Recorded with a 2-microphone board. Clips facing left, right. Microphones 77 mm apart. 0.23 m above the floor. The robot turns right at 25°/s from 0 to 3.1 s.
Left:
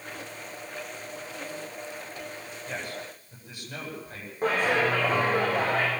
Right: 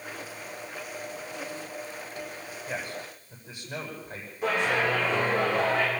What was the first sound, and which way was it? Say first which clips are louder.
A man speaking: right 1 dB; 5° right (ahead or behind).